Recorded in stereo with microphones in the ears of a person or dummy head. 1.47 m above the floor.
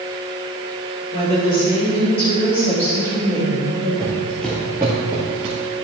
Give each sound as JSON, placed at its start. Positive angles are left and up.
{"t": 1.1, "sound": "a woman speaking", "side_deg": 40, "distance_m": 3.0}
{"t": 4.0, "sound": "footsteps", "side_deg": 15, "distance_m": 1.8}